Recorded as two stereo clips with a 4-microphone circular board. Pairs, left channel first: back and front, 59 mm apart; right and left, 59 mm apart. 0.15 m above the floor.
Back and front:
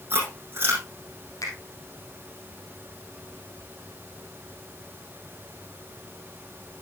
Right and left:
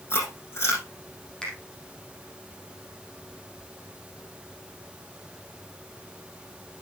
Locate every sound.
0.1 s chewing: 50° right, 5.5 m
1.4 s a finger snap: 170° right, 4.5 m